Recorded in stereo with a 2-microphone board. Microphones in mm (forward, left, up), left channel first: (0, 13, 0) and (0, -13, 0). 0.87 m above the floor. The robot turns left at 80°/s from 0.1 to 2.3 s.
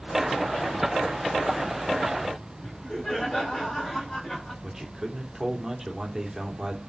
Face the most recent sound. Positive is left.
turn(degrees=-10)  # may be behind; listen again after turning